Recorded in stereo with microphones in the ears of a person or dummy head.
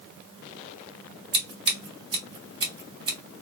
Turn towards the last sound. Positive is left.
turn(degrees=-25)  # may be behind; listen again after turning